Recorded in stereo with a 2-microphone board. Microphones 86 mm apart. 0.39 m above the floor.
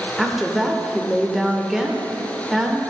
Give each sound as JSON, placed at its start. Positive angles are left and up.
{"t": 0.2, "sound": "a woman speaking", "side_deg": -5, "distance_m": 0.8}